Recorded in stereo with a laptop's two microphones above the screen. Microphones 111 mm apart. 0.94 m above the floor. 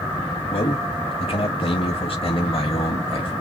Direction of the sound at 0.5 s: 60° left (ahead or behind).